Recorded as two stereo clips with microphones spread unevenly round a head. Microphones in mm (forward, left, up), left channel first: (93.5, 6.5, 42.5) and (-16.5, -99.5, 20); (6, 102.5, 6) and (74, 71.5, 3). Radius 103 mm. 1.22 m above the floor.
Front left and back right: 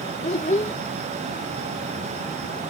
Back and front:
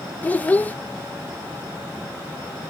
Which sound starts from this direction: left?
A child speaking, at 0.2 s.